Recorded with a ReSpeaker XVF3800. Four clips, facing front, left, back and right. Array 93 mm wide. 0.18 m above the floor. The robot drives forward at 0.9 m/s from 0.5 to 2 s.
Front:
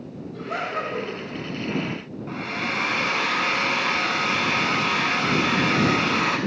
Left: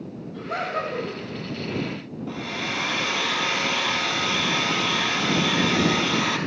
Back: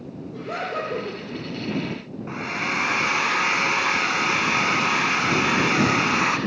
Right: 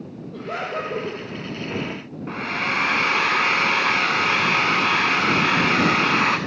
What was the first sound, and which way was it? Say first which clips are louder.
Laughter: even, even; 110° right.